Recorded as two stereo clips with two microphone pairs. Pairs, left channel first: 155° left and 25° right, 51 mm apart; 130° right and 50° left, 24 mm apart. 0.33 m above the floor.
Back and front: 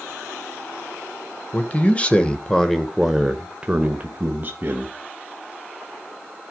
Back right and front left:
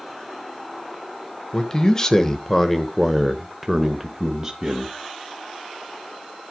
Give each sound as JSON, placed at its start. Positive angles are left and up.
{"t": 1.5, "sound": "a man speaking", "azimuth_deg": -170, "distance_m": 1.4}